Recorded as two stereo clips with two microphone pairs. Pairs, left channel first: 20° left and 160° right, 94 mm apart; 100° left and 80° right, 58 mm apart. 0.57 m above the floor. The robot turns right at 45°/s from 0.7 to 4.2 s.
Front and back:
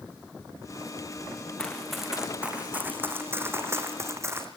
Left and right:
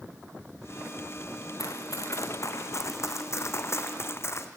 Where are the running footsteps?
100° left, 3.5 m; by 4.5 s 135° left, 2.5 m.